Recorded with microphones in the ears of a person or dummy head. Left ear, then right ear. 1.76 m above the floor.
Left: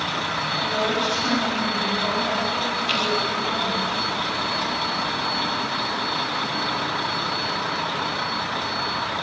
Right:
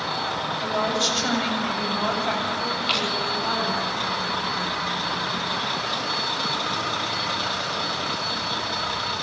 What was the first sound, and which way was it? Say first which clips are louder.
A woman speaking: right 1 dB; 35° right (ahead or behind).